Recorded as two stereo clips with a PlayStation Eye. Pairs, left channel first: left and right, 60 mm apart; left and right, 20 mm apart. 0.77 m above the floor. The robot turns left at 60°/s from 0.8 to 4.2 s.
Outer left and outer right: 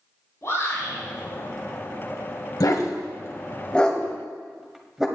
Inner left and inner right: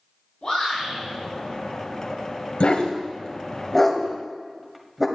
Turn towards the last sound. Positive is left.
turn(degrees=-10)  # may be behind; listen again after turning